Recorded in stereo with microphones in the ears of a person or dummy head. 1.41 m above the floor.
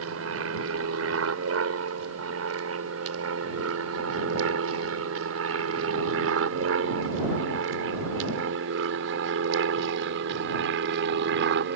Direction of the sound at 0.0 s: 75° right (ahead or behind).